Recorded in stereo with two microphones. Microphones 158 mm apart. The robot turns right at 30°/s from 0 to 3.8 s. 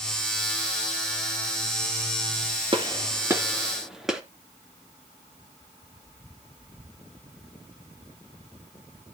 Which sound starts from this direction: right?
A gunshot, at 2.7 s.